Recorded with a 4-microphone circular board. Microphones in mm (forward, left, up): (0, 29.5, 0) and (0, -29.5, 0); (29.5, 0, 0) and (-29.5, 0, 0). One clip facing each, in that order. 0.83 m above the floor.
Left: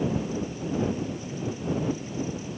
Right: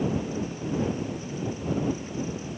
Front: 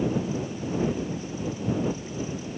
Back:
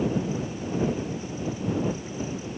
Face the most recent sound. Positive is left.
No sound to turn to.